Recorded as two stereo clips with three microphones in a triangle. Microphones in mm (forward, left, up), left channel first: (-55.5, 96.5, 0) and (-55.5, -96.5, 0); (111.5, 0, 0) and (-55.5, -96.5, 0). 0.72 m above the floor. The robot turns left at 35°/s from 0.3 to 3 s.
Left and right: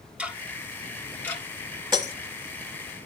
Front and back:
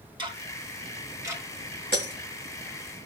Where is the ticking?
170° right, 0.9 m; by 1.4 s 150° left, 0.9 m.